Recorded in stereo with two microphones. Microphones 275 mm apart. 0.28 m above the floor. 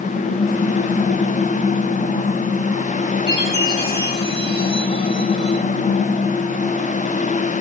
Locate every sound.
3.3 s a chime: 20° right (ahead or behind), 10 m